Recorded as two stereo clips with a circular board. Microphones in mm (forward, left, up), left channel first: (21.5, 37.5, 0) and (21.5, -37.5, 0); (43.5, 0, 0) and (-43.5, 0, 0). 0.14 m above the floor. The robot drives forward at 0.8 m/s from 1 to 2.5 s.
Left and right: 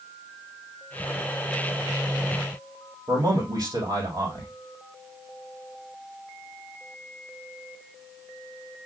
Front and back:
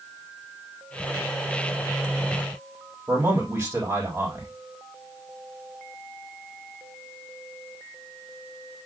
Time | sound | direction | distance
3.1 | a man speaking | 120° right | 4 m